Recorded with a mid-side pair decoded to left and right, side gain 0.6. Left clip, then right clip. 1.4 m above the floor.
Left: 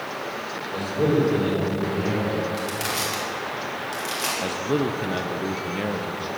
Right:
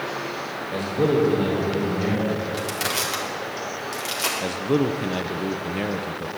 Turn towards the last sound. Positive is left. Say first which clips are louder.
# right 1 dB
turn(degrees=-10)